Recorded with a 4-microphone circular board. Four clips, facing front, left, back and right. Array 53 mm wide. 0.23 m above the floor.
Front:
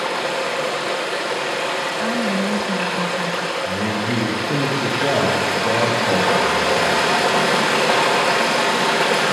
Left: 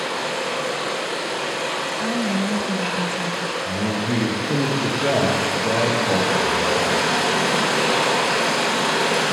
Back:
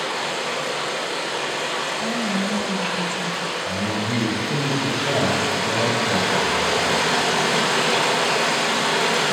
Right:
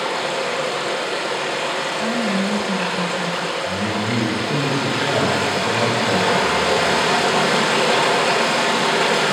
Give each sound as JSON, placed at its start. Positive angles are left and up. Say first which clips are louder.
{"t": 0.0, "sound": "running water", "louder": "right 3 dB, front 4 dB", "azimuth_deg": -25, "distance_m": 7.5}
{"t": 2.0, "sound": "a woman speaking", "louder": "right 1 dB, front 4 dB", "azimuth_deg": 0, "distance_m": 1.2}
{"t": 3.6, "sound": "a man speaking", "louder": "right 1 dB, front 3 dB", "azimuth_deg": 35, "distance_m": 7.5}